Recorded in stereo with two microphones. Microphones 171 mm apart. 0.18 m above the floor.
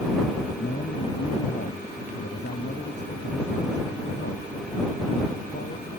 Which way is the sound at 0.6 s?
80° left.